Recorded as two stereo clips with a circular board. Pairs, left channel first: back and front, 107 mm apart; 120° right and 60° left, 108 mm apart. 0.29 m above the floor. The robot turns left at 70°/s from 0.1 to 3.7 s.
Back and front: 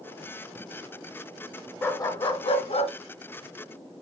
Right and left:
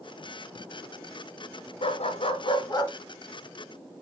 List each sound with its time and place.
1.8 s a dog barking: 110° right, 1.5 m; by 2.9 s 175° left, 1.5 m